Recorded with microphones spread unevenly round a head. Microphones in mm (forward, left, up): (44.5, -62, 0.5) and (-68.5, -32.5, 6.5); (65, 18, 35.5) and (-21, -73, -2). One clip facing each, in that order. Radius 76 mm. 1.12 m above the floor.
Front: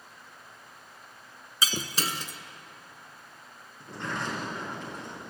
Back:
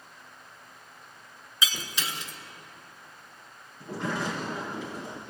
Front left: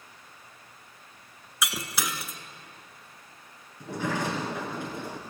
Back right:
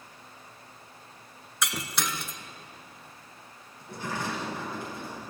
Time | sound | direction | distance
1.6 | breaking glass | 5° right | 1.2 m
3.8 | a sliding door | 80° left | 4 m